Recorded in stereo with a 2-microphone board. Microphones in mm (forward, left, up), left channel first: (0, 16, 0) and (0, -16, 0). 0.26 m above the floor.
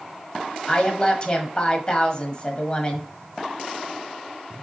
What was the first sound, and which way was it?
A woman speaking, 35° left (ahead or behind).